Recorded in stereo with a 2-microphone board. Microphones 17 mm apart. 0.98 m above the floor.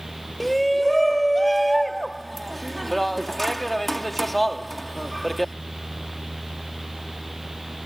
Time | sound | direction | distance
0.4 | a shout | 5° left (ahead or behind) | ?